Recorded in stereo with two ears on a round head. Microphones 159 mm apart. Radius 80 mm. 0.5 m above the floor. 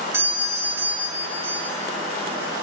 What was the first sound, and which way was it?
A doorbell, 15° right (ahead or behind).